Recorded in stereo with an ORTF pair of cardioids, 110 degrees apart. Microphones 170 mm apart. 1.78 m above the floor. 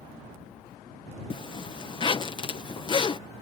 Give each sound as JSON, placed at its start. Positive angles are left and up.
{"t": 1.3, "sound": "a zipper", "azimuth_deg": 30}